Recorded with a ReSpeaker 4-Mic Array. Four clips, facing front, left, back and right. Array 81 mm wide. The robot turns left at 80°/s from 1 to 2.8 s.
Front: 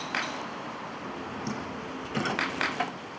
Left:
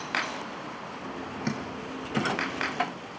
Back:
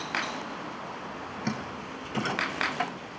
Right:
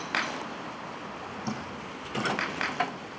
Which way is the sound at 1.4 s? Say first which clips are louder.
Left 3 dB, back 1 dB; 135° left.